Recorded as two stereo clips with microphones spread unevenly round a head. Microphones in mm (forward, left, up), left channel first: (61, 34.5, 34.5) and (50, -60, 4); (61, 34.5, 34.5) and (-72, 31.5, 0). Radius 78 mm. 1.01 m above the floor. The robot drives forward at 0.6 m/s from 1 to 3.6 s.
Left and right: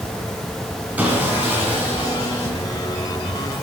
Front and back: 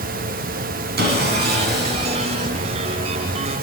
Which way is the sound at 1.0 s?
175° left.